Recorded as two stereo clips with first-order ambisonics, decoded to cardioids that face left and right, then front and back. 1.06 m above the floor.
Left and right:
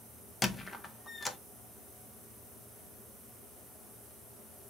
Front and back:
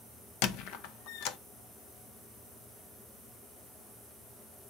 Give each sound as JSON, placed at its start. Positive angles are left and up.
{"t": 0.4, "sound": "a squeak", "azimuth_deg": 15, "distance_m": 0.6}